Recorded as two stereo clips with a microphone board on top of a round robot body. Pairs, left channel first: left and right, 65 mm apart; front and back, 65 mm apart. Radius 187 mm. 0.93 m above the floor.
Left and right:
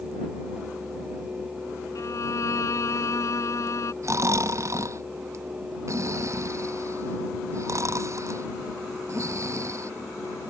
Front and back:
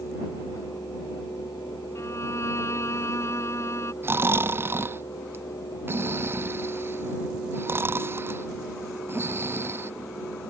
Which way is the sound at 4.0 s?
130° right.